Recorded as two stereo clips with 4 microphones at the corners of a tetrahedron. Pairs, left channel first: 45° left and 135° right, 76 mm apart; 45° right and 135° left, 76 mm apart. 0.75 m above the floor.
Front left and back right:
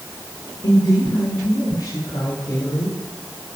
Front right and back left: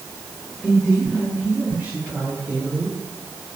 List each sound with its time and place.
0.6 s a woman speaking: 50° left, 3 m; by 3.0 s 80° left, 4 m